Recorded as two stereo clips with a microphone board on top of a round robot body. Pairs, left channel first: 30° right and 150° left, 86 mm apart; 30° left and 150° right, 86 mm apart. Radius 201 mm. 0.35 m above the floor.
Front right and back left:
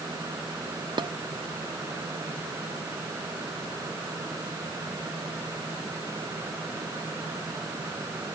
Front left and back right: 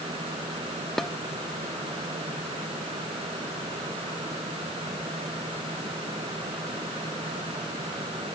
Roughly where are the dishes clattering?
Behind left.